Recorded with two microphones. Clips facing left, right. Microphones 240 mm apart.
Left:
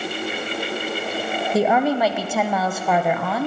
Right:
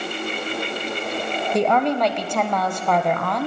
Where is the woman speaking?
5° left (ahead or behind), 1.1 m.